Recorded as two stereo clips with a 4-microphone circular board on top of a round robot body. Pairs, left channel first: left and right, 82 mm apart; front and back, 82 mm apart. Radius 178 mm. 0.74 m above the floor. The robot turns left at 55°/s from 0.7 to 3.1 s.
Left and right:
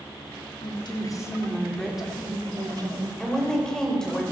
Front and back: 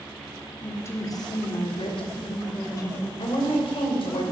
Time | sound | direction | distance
0.6 | a woman speaking | 65° left | 3 m
3.2 | a woman speaking | 10° left | 4 m